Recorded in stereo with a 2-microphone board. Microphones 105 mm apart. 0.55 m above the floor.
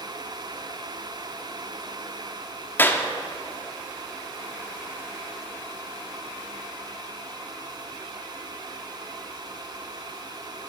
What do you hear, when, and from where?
2.8 s a clap: 20° left (ahead or behind), 1.0 m